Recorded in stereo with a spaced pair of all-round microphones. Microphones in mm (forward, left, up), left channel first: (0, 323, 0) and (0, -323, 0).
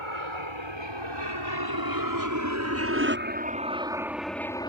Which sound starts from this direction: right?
An aircraft, at 0.0 s.